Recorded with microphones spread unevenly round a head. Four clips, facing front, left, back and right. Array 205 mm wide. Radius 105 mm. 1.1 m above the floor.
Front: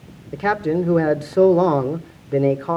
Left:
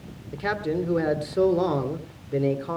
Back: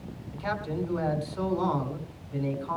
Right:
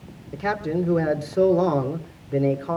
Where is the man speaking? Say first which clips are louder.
Right 2 dB, front 12 dB; 5° right, 3 m.